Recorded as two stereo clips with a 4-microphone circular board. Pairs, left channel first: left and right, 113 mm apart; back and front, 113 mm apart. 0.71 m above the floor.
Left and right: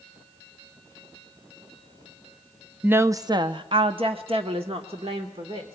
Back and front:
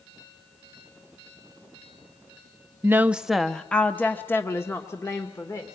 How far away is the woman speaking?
About 0.5 m.